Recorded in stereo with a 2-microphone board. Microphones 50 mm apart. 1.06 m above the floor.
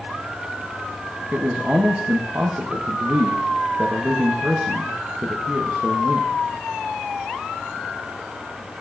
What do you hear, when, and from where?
1.3 s a man speaking: 40° right (ahead or behind), 0.8 m